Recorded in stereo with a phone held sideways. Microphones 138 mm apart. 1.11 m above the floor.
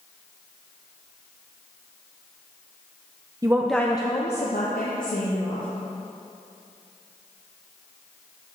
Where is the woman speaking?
25° right (ahead or behind), 0.6 m; by 5.7 s 80° left, 1.9 m.